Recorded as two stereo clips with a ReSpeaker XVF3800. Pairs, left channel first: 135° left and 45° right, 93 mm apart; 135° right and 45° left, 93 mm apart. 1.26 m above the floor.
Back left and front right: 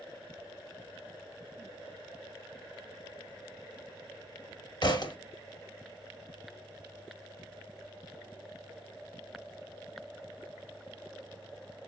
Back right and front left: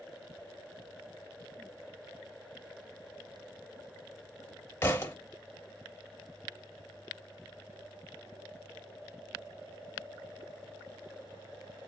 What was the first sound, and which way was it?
A thud, 165° left.